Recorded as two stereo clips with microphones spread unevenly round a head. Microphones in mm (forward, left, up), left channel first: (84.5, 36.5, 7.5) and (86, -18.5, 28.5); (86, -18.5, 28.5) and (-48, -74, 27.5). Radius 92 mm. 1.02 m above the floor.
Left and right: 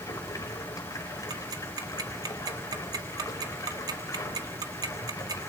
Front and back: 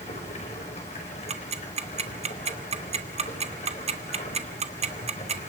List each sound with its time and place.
0.0 s running water: 80° left, 4.5 m
1.3 s ticking: 115° right, 1.6 m